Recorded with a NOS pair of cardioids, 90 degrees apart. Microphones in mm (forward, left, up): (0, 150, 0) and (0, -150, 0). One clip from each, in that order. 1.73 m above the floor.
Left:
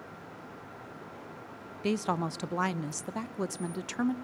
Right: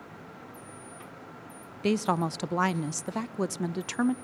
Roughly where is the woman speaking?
Ahead.